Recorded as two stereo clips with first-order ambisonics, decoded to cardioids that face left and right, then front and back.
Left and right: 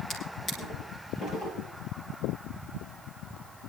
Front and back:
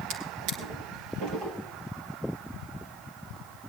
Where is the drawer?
150° left, 3.5 m.